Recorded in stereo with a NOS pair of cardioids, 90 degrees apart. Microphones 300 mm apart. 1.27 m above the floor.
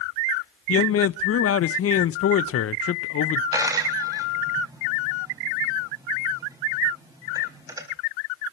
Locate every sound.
0.7 s a man speaking: 50° left, 0.9 m
3.5 s a dropped coin: 10° right, 4 m